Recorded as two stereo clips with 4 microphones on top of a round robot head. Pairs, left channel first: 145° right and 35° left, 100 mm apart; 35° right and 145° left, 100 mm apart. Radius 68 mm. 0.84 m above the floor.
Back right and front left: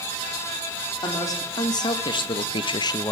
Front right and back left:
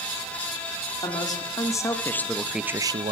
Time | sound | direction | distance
1.0 | a man speaking | 85° right | 2.0 m